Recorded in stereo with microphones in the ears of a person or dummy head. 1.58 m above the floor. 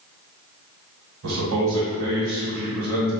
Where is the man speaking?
80° right, 1.4 m.